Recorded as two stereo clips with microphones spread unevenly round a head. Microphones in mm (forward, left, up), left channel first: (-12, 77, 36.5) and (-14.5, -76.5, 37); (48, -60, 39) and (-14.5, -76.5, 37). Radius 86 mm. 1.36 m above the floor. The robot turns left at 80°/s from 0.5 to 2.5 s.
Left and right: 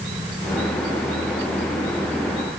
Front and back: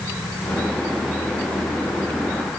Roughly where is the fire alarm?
I don't hear a fire alarm.